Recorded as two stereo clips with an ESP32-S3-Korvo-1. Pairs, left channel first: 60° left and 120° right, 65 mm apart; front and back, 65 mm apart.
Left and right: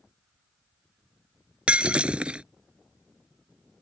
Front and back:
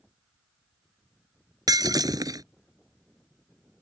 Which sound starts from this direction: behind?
Breaking glass, at 1.7 s.